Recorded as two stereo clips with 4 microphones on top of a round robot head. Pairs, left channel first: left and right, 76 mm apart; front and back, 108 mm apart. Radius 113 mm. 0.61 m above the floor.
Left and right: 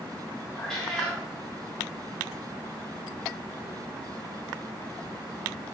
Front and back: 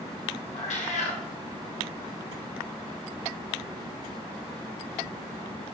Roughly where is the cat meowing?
Ahead.